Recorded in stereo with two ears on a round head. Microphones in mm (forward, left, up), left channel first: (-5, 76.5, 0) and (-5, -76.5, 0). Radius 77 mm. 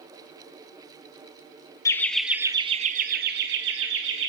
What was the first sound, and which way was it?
Laughter, 15° left (ahead or behind).